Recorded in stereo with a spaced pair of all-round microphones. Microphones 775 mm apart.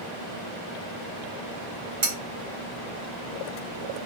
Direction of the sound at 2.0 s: 80° right.